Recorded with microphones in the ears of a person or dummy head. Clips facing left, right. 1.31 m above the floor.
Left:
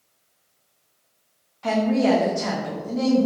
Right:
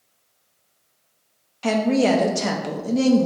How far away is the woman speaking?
About 0.6 m.